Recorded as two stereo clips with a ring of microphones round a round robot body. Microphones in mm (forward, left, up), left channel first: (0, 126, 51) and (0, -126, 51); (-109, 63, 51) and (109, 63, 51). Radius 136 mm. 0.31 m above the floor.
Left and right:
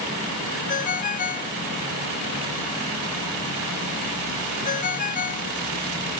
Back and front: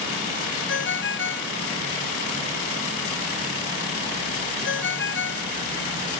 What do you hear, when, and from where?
0.7 s a ringtone: 150° left